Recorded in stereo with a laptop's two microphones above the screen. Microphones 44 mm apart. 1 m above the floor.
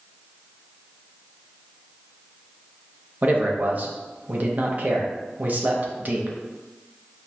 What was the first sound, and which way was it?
A man speaking, 40° right (ahead or behind).